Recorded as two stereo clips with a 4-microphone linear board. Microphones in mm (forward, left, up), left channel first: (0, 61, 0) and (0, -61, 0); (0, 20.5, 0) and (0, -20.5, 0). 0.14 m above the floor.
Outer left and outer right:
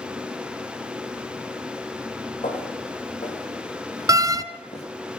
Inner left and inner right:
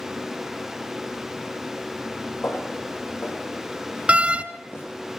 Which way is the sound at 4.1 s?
30° right (ahead or behind).